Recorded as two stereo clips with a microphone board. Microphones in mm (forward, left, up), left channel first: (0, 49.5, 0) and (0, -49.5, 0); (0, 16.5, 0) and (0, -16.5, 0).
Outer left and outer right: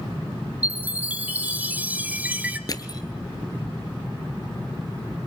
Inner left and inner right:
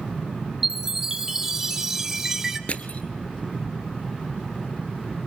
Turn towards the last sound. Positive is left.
turn(degrees=40)  # may be behind; listen again after turning